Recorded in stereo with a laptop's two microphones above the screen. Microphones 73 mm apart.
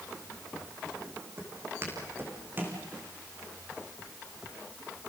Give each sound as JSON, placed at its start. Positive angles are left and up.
{"t": 1.4, "sound": "footsteps", "side_deg": -35, "distance_m": 4.5}